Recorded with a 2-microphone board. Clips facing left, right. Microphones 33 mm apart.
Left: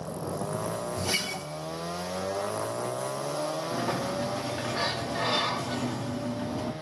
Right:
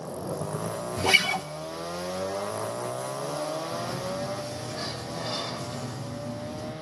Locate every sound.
1.0 s a guitar: 40° right (ahead or behind), 0.6 m
3.7 s a sliding door: 70° left (ahead or behind), 2 m